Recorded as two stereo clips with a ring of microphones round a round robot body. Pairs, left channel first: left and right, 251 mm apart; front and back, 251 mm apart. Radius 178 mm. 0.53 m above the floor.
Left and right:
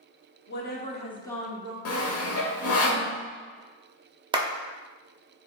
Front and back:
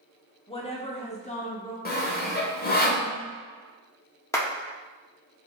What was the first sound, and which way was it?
A woman speaking, 65° left.